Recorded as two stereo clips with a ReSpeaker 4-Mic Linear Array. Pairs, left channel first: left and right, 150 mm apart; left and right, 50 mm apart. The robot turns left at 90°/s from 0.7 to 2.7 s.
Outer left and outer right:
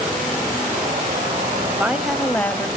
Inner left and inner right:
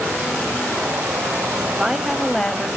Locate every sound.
1.7 s a woman speaking: 15° right (ahead or behind), 1.0 m; by 2.7 s 15° left (ahead or behind), 1.0 m